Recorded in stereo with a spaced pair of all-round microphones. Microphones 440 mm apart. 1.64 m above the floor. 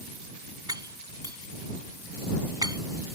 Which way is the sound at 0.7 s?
10° right (ahead or behind).